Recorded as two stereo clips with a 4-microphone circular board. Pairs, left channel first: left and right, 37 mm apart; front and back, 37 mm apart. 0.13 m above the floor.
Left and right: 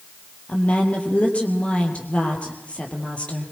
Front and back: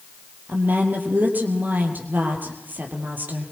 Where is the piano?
I don't hear a piano.